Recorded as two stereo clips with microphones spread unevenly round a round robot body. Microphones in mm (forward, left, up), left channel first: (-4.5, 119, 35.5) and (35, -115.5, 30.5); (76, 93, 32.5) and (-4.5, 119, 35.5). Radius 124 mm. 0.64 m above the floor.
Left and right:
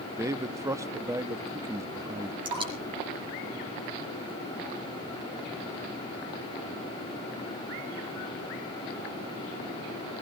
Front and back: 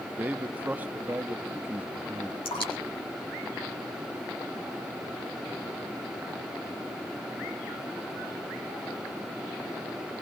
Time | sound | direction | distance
0.2 | a man speaking | 145° right | 0.8 m
2.5 | dripping | 10° right | 5.5 m